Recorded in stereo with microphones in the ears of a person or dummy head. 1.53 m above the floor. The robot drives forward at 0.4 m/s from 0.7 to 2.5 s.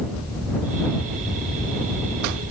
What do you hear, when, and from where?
Only background noise.